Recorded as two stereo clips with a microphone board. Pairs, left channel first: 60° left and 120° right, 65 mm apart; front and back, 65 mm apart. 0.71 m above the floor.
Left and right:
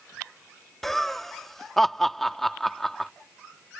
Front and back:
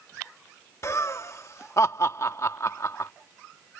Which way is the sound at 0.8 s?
25° right.